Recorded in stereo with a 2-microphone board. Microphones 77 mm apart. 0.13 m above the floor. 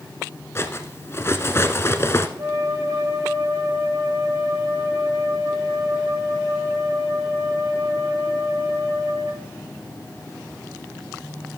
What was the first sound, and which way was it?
Cutlery clinking, 35° left (ahead or behind).